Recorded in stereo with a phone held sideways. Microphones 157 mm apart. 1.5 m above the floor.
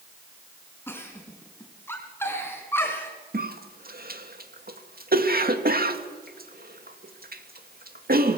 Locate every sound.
0.9 s a giggle: 15° left (ahead or behind), 3.5 m
3.3 s a cough: 70° right (ahead or behind), 2 m